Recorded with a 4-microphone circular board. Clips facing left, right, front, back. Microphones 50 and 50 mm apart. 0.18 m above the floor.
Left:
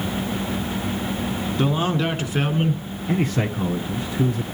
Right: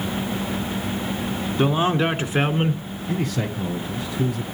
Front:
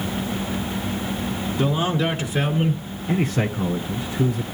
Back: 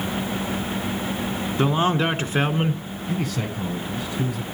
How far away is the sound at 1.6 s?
About 1.7 m.